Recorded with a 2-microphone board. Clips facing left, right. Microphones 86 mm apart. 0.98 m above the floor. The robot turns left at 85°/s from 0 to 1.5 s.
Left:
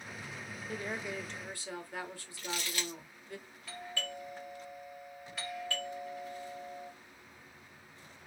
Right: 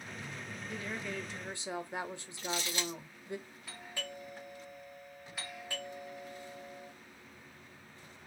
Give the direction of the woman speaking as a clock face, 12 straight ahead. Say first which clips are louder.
Left 2 dB; 10 o'clock.